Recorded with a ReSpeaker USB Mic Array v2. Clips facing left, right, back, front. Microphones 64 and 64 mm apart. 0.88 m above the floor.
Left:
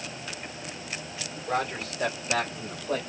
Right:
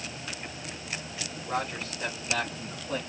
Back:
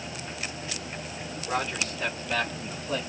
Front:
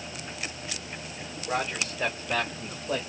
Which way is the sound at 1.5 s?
70° left.